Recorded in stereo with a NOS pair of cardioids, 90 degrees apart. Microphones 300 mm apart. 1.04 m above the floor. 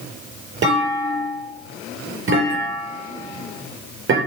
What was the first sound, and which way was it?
A clunk, 40° right.